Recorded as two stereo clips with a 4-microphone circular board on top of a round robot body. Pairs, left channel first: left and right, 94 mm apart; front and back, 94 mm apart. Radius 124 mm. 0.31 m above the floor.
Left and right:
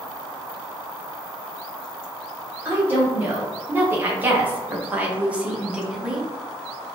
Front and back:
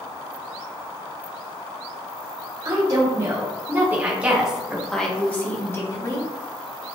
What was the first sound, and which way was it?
A woman speaking, 150° right.